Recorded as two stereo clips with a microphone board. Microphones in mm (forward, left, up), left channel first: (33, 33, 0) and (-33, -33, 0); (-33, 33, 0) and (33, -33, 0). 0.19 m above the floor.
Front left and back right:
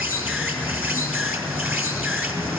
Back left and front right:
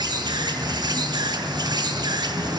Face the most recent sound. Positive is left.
turn(degrees=-70)